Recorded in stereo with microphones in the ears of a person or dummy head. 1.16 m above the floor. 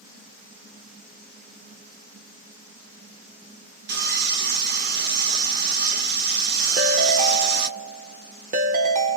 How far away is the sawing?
About 1.1 m.